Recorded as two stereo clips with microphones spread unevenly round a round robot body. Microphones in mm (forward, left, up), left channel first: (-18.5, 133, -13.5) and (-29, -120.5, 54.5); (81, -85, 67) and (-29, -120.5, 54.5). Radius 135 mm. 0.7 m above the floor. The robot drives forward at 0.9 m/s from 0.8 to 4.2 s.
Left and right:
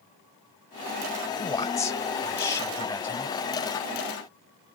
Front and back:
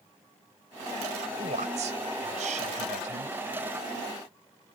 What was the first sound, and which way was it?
A man speaking, 160° left.